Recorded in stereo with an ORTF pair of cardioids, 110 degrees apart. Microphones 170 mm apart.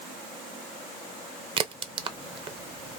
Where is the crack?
30° right, 0.6 m.